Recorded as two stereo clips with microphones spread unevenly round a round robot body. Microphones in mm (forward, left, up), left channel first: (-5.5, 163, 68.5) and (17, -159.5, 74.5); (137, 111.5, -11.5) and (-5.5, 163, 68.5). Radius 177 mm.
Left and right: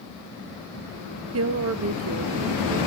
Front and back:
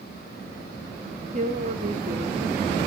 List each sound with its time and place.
1.3 s a woman speaking: 130° right, 1.6 m